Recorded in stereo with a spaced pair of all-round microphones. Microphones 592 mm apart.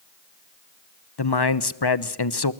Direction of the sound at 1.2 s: 40° left (ahead or behind).